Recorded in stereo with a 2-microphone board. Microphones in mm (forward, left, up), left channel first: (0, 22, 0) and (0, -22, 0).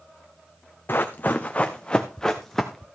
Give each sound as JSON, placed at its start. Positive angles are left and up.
{"t": 0.9, "sound": "running footsteps", "side_deg": 50, "distance_m": 1.2}